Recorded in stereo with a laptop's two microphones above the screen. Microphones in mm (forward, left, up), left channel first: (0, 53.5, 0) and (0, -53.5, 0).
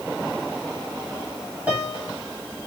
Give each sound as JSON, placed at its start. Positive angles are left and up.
{"t": 1.7, "sound": "a piano", "side_deg": -15, "distance_m": 1.7}